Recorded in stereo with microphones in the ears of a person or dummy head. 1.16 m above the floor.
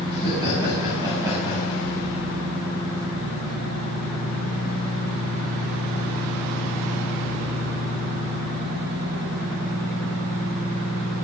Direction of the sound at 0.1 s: 30° right (ahead or behind).